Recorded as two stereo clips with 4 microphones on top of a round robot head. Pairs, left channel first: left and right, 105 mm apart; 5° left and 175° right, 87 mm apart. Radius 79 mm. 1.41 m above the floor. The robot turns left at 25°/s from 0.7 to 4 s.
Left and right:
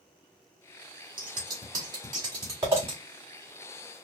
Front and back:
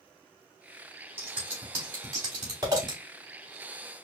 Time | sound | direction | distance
1.2 | scissors | 110° right | 1.1 m